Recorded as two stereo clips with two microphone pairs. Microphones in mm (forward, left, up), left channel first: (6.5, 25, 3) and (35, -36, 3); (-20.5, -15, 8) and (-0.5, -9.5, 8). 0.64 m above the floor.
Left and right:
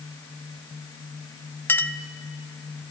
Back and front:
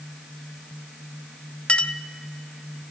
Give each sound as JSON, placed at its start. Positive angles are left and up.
{"t": 1.7, "sound": "a clink", "azimuth_deg": 175, "distance_m": 0.6}